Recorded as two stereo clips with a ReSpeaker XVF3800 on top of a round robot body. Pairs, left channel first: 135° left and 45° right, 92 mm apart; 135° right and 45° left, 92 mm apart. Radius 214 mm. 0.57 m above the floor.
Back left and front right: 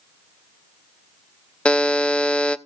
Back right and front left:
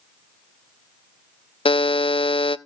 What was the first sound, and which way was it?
A buzzer, 145° right.